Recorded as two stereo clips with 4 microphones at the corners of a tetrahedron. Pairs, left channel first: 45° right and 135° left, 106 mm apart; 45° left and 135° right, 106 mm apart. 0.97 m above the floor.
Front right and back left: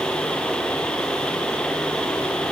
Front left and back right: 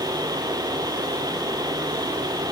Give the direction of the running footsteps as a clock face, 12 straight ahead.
I don't hear running footsteps.